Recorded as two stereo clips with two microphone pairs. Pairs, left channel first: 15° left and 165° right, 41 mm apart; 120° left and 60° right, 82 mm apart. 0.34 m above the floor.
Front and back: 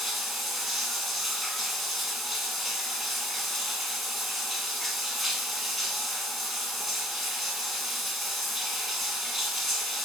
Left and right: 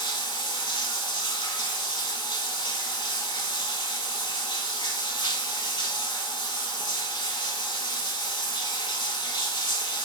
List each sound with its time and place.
0.0 s running water: 105° left, 0.8 m